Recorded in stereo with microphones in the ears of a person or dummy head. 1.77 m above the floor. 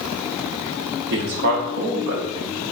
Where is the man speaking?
50° right (ahead or behind), 0.7 m.